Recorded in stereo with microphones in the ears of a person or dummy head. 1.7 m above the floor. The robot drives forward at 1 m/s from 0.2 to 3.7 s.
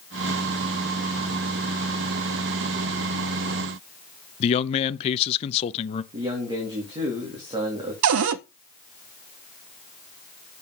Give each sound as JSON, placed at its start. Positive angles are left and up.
{"t": 4.4, "sound": "a man speaking", "side_deg": 30, "distance_m": 0.6}
{"t": 6.1, "sound": "a man speaking", "side_deg": -25, "distance_m": 2.5}
{"t": 8.0, "sound": "a cupboard door", "side_deg": -70, "distance_m": 0.5}